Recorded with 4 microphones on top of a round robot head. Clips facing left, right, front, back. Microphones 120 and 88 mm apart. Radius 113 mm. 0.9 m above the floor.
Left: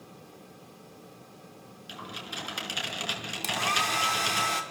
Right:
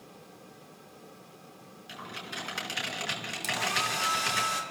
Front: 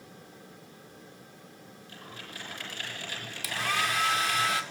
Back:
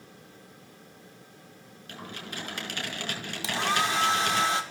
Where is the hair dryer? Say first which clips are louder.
Left 3 dB, back 3 dB; 115° left, 2.5 m.